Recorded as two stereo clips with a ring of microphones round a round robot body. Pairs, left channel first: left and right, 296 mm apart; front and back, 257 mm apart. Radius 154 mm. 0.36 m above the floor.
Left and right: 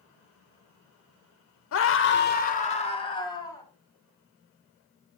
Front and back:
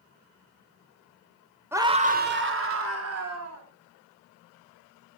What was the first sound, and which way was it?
A scream, 100° left.